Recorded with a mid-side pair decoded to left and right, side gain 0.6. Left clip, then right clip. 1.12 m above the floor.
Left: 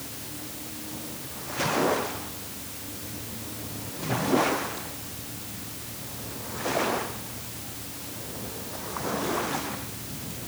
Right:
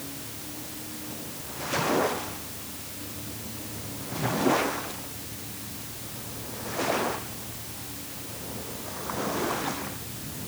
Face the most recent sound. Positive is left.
No sound to turn to.